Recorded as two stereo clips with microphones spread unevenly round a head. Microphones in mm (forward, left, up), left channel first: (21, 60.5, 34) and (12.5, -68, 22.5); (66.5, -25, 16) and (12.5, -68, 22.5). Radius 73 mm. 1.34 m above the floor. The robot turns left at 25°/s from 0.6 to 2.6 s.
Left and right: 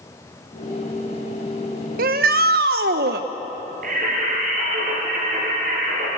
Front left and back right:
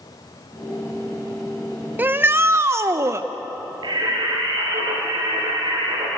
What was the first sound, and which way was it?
A shout, 80° right.